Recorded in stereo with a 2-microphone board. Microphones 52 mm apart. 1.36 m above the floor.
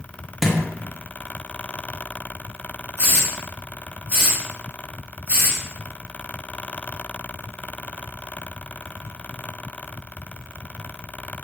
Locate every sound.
0.4 s a thud: 5° right (ahead or behind), 0.8 m
3.0 s a hiss: 35° right (ahead or behind), 1.2 m